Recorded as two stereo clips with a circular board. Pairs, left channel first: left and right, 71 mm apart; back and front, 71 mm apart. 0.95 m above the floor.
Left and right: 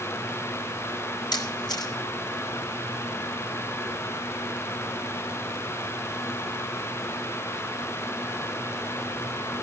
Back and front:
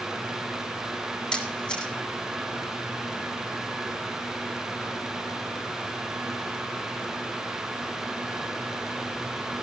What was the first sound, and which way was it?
A camera shutter, 105° left.